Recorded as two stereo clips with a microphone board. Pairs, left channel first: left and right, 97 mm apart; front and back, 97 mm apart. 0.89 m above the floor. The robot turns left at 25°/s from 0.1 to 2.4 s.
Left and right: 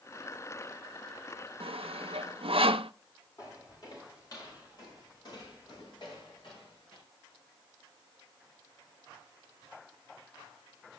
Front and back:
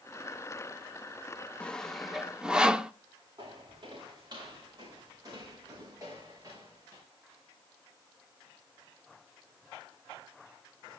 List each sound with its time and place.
1.6 s sawing: 80° right, 0.7 m; by 2.9 s 100° right, 0.7 m
3.4 s footsteps: 140° left, 6.5 m; by 7.0 s 120° left, 6 m